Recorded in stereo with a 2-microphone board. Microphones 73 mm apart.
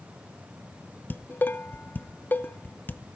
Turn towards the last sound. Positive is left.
turn(degrees=25)  # may be behind; listen again after turning